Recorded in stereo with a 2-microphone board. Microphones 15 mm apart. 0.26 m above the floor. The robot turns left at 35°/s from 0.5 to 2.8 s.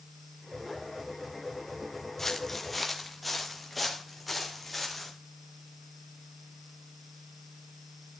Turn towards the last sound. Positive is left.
turn(degrees=5)  # may be behind; listen again after turning